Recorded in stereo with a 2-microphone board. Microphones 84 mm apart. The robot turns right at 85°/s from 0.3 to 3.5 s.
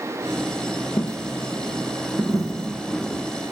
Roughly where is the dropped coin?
Left.